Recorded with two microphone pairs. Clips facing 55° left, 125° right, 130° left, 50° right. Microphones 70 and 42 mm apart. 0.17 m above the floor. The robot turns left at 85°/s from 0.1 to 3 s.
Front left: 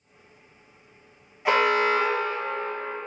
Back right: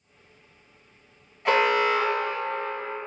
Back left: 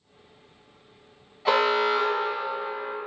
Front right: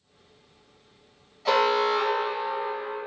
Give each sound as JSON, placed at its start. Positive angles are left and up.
{"t": 1.4, "sound": "an alarm", "azimuth_deg": 130, "distance_m": 0.7}